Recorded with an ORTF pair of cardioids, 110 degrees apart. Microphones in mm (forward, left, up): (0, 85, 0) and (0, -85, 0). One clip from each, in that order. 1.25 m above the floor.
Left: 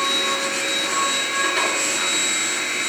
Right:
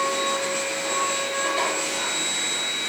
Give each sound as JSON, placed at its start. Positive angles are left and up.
{"t": 0.0, "sound": "a machine running", "azimuth_deg": 70, "distance_m": 2.5}